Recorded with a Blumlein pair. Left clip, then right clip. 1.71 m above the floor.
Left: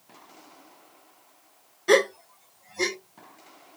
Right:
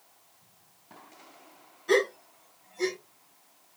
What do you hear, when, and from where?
1.9 s a gasp: 30° left, 0.9 m